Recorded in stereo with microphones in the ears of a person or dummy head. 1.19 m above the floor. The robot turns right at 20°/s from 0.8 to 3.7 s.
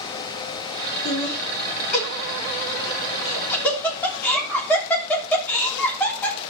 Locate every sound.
1.1 s laughter: 60° left (ahead or behind), 3.5 m; by 6.4 s 10° left (ahead or behind), 3.5 m